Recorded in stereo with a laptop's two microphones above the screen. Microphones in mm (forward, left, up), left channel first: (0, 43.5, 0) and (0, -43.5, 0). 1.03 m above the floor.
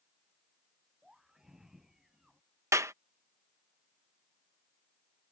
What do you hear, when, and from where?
1.0 s a scream: 5° right (ahead or behind)
2.7 s a clap: 35° right (ahead or behind)